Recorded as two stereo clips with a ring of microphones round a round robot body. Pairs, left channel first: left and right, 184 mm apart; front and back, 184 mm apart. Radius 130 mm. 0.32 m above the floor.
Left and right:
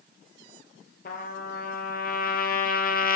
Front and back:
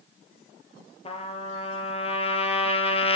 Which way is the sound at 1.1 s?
55° left.